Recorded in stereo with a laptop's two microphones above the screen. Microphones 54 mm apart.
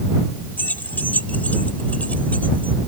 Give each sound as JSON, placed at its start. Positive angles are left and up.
{"t": 0.6, "sound": "keys jangling", "side_deg": 35}